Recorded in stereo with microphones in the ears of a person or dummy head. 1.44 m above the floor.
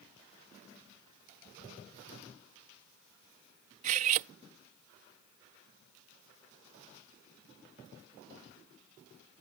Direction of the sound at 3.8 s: 45° right (ahead or behind).